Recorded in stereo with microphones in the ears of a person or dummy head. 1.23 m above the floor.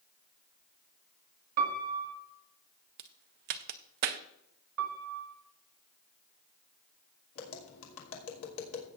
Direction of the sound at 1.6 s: 50° right (ahead or behind).